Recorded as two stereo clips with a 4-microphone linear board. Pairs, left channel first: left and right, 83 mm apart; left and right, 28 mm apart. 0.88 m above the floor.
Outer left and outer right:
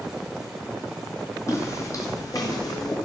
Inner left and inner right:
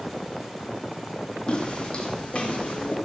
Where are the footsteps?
35° left (ahead or behind), 2 m; by 3.0 s 50° left (ahead or behind), 2.5 m.